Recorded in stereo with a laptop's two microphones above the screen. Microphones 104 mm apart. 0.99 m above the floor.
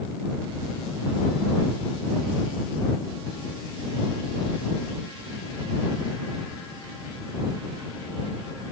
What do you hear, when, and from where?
Only background noise.